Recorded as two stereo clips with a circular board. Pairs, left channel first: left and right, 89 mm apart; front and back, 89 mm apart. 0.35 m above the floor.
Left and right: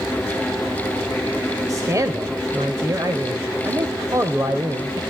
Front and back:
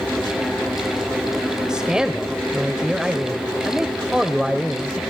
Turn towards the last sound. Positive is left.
turn(degrees=-105)